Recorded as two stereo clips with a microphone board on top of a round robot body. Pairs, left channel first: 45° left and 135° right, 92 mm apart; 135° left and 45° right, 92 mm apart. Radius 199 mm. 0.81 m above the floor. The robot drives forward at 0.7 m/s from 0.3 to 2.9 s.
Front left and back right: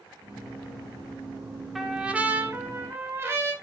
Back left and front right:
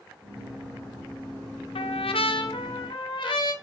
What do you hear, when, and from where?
1.8 s a trumpet: 135° left, 0.6 m; by 3.5 s 160° left, 1.3 m